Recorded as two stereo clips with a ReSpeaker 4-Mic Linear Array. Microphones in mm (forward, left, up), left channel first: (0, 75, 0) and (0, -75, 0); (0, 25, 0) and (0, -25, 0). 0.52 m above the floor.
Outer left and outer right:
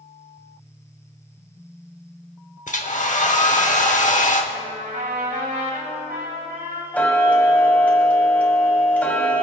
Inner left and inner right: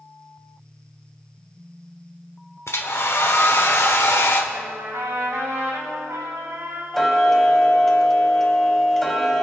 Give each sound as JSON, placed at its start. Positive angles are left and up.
{"t": 2.7, "sound": "a hair dryer", "side_deg": 55, "distance_m": 1.1}
{"t": 4.5, "sound": "a trumpet", "side_deg": -75, "distance_m": 3.5}
{"t": 6.9, "sound": "ticking", "side_deg": 10, "distance_m": 1.2}